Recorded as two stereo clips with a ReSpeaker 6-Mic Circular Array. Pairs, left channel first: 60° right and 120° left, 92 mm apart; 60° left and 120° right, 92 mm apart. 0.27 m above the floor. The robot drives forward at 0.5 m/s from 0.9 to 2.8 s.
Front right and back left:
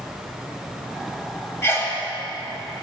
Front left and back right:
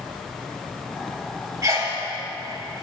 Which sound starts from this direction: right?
A sneeze, at 1.6 s.